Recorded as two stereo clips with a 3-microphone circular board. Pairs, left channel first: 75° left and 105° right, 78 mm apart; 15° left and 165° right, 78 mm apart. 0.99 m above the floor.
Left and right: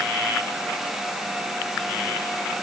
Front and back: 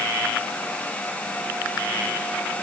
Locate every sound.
Only background noise.